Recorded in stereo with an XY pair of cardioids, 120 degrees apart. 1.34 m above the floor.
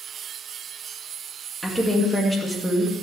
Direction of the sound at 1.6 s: 5° right.